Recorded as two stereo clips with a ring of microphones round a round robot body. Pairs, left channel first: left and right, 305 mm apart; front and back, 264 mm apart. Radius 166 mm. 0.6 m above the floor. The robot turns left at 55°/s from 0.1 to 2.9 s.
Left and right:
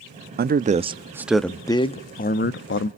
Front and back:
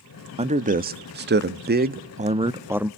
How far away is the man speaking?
About 0.8 m.